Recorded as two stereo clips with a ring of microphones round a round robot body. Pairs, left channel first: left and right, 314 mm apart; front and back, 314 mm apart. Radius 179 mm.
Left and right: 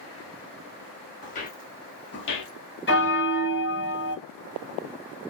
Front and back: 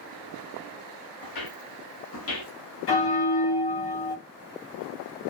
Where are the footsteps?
25° left, 2 m; by 2.5 s 60° left, 1.1 m.